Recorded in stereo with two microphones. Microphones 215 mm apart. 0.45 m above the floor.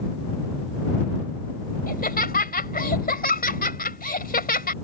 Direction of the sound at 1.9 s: 45° left (ahead or behind).